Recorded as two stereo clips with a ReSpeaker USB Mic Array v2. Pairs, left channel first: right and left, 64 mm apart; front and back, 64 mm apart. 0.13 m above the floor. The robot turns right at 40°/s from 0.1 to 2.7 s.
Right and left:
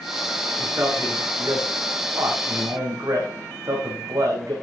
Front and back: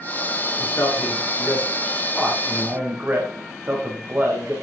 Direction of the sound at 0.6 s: 35° left.